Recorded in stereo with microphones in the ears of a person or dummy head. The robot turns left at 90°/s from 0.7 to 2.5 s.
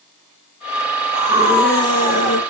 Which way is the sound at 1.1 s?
140° right.